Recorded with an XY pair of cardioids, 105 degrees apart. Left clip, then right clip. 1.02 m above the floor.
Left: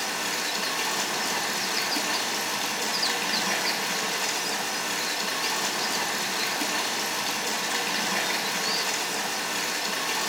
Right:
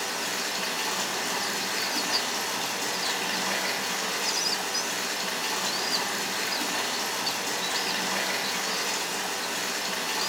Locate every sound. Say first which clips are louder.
0.0 s running water: left 2 dB; 15° left, 0.7 m